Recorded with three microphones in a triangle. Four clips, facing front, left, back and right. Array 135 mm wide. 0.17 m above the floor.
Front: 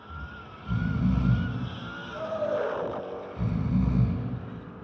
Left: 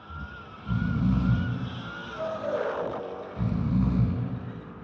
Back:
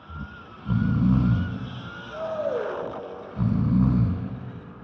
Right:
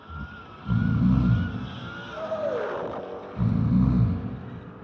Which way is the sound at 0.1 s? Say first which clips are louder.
Right 1 dB, back 3 dB; 150° right.